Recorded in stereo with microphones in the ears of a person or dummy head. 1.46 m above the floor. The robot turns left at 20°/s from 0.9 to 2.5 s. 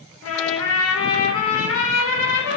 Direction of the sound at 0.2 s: 95° left.